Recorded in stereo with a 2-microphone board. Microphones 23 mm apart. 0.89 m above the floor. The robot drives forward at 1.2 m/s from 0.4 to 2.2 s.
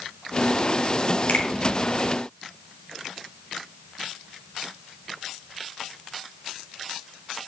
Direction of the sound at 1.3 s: 75° left (ahead or behind).